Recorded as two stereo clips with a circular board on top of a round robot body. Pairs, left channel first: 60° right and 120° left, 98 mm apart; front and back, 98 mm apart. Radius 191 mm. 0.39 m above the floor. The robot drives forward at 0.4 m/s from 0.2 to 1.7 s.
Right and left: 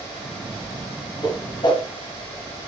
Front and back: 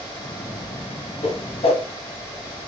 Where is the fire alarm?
I don't hear a fire alarm.